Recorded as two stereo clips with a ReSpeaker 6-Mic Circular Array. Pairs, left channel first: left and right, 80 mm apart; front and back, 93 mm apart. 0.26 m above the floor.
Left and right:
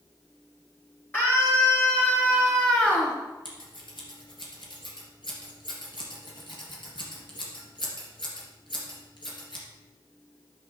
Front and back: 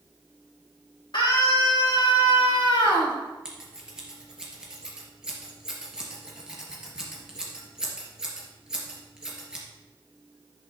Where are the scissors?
95° left, 3 m.